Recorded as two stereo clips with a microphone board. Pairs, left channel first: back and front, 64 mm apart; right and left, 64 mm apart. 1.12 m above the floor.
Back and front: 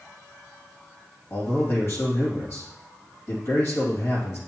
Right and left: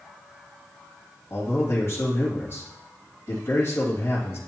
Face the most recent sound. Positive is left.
turn(degrees=-135)